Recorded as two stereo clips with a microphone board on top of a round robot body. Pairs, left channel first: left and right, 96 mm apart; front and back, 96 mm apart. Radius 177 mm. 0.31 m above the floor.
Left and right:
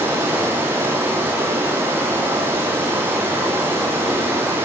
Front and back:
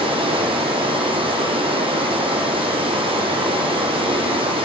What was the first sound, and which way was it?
Running water, 155° right.